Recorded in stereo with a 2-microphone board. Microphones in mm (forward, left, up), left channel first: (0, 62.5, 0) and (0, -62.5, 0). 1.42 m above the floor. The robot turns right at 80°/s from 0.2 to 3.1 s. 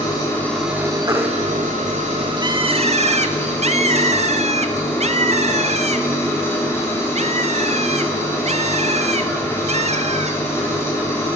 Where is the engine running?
150° left, 3.5 m; by 11.4 s 20° left, 3.5 m.